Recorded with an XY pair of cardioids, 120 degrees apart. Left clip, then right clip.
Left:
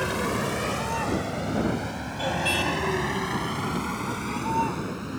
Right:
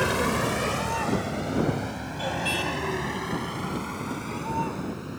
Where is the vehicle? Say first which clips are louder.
Right 2 dB; 20° right; by 5.2 s 25° left.